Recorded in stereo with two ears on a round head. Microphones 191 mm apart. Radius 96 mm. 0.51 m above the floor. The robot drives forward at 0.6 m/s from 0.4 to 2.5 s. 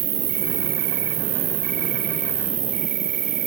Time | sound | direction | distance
0.0 | an insect | 70° right (ahead or behind) | 1.8 m